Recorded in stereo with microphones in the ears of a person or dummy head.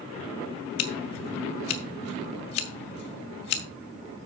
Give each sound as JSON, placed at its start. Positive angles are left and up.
{"t": 0.8, "sound": "scissors", "side_deg": 45, "distance_m": 0.6}